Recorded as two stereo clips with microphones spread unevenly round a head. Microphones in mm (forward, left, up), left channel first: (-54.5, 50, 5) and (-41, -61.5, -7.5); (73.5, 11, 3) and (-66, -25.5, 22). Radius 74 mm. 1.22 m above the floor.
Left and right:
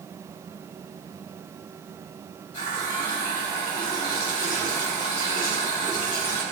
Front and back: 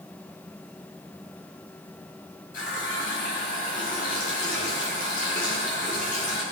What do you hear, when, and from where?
2.5 s a running tap: 55° left, 6 m